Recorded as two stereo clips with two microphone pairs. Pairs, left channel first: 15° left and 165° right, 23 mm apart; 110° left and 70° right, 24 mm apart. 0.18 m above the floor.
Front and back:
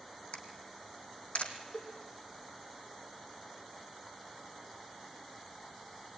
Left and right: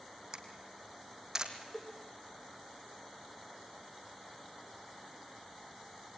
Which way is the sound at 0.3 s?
10° right.